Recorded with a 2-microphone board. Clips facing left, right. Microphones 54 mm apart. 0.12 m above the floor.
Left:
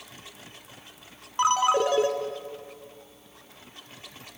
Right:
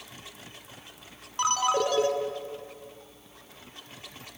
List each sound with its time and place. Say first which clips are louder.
1.4 s a ringtone: left 4 dB; 25° left (ahead or behind), 0.6 m